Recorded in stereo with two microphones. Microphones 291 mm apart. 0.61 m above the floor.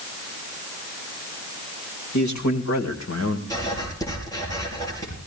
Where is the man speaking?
70° left (ahead or behind), 2.5 m; by 3.4 s 50° left (ahead or behind), 2 m.